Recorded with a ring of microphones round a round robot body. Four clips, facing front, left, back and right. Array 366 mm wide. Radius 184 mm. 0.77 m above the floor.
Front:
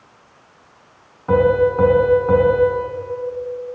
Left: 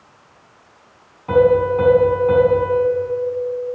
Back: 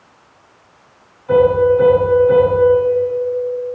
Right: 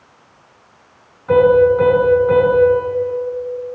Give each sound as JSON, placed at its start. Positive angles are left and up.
{"t": 1.3, "sound": "a piano", "azimuth_deg": 20, "distance_m": 4.5}